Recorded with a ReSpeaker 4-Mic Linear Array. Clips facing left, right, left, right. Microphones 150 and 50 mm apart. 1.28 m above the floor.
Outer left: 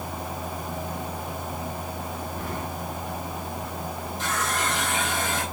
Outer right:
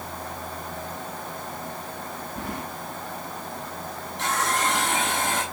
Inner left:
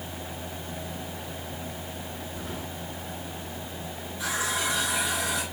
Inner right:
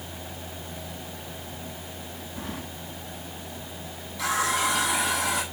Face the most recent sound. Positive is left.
turn(degrees=-85)